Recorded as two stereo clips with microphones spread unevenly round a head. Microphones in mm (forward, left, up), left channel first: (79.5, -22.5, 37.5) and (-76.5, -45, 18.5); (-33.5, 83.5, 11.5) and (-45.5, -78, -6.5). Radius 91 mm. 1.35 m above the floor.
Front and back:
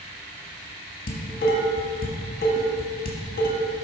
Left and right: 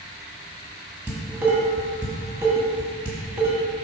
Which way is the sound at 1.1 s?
10° right.